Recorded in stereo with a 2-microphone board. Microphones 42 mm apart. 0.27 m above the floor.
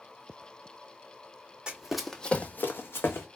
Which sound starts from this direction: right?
Running footsteps, at 1.7 s.